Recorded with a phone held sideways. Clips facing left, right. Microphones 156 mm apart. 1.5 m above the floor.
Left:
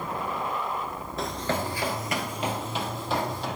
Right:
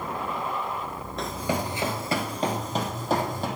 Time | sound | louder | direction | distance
1.2 | running footsteps | right 1 dB | centre (ahead or behind) | 1.5 m